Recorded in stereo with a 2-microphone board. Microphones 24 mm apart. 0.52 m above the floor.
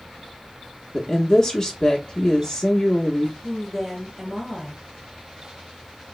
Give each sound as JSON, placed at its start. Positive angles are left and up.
{"t": 0.9, "sound": "a woman speaking", "side_deg": 25, "distance_m": 0.7}
{"t": 3.4, "sound": "a woman speaking", "side_deg": -20, "distance_m": 2.5}